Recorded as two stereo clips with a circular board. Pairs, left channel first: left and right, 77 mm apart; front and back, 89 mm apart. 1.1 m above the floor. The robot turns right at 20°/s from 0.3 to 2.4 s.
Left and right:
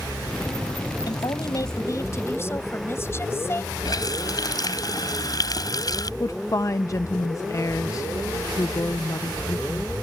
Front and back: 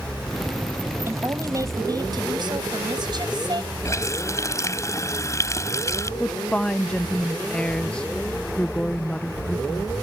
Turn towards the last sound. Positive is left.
turn(degrees=75)